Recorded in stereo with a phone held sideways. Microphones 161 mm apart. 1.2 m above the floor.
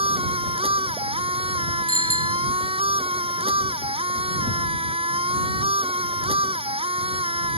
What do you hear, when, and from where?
0.0 s a machine running: 40° right (ahead or behind)
1.9 s a bicycle bell: 45° left (ahead or behind)